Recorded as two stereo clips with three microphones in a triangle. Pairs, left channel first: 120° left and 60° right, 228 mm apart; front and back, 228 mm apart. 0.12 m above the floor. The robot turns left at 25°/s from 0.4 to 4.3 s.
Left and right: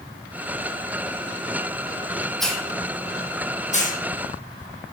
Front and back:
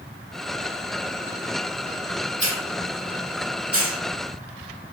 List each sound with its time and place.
2.4 s a hiss: 150° right, 1.1 m; by 4.0 s 170° left, 1.1 m